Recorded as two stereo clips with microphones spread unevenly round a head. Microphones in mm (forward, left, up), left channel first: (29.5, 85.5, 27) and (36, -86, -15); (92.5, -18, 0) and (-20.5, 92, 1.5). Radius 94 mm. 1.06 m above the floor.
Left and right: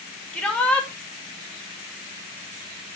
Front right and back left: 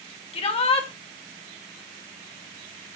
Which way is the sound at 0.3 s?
5° left.